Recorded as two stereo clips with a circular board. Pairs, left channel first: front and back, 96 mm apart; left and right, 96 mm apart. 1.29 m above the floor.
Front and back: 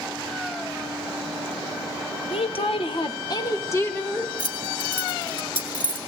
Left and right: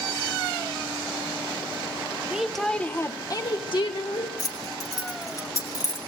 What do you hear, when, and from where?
2.3 s a woman speaking: 10° right, 1.2 m; by 4.3 s 75° left, 1.9 m
4.4 s keys jangling: 35° left, 2 m